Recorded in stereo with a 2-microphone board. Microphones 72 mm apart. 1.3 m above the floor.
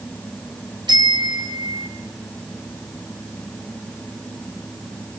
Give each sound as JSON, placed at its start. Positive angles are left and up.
{"t": 0.9, "sound": "a bicycle bell", "side_deg": -75, "distance_m": 4.5}